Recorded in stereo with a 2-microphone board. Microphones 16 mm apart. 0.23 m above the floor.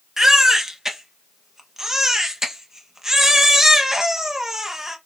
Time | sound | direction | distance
0.2 | a baby crying | 30° right (ahead or behind) | 0.6 m